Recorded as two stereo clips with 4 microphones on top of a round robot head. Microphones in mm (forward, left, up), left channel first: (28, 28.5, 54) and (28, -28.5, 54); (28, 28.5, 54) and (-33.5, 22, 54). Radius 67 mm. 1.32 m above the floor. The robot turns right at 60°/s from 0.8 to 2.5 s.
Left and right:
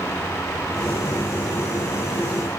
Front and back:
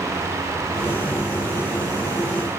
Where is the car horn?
I don't hear a car horn.